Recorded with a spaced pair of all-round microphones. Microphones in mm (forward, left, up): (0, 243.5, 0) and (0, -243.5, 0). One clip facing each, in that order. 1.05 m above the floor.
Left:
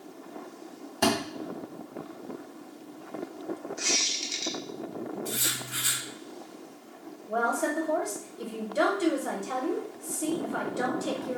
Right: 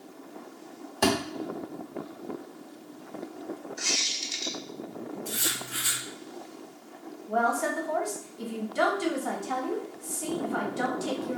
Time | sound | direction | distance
1.0 | a thud | 25° left (ahead or behind) | 1.0 m
3.8 | a squeak | 15° right (ahead or behind) | 0.5 m
5.2 | writing | 40° left (ahead or behind) | 1.3 m
7.3 | a woman speaking | 15° right (ahead or behind) | 0.7 m